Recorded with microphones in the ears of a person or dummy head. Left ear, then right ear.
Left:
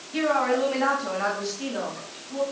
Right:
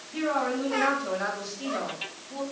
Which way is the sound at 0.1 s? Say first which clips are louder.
Left 5 dB; 20° left (ahead or behind).